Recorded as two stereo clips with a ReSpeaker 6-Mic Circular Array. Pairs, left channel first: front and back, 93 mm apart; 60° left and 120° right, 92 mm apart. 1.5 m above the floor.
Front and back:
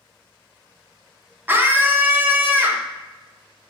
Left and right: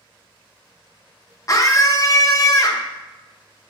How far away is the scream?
About 1.0 m.